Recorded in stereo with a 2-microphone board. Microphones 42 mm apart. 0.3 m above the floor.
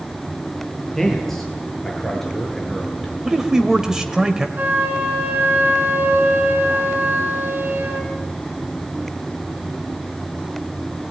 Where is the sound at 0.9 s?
5° left (ahead or behind), 6.5 m.